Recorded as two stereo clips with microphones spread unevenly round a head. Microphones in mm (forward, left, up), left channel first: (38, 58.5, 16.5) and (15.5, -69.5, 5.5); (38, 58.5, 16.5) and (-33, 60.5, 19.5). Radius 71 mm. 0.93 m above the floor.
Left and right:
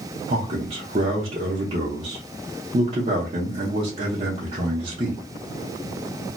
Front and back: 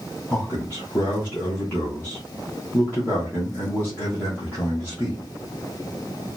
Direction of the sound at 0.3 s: 70° right.